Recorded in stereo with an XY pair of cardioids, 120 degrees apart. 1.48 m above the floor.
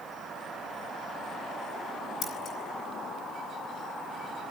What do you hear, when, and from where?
2.2 s scissors: 45° left, 7.5 m